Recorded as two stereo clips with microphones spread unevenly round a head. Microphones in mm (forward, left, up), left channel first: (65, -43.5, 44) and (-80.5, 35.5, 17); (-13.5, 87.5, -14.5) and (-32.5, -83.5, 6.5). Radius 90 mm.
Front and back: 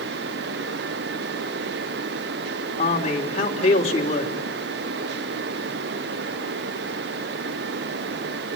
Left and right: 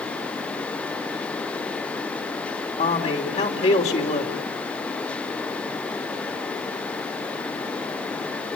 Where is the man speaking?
30° left, 3 m.